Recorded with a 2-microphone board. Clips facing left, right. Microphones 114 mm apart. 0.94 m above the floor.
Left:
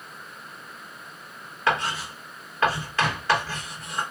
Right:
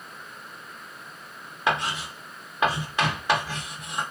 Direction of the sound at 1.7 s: 15° right (ahead or behind).